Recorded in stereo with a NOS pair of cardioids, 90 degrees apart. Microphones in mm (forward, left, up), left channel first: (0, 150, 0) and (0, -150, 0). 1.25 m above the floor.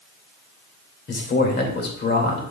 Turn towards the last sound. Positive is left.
turn(degrees=35)